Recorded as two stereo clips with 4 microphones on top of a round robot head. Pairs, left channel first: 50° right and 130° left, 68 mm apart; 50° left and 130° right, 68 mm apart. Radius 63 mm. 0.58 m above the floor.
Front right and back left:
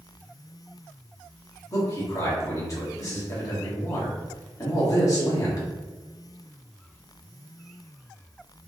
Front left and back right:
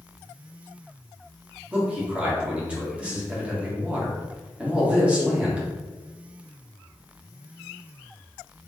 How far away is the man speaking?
About 1.8 m.